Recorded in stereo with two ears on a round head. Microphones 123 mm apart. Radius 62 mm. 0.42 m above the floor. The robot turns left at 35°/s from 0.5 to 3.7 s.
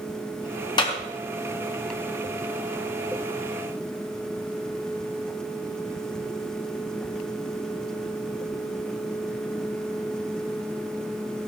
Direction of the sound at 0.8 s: 35° left (ahead or behind).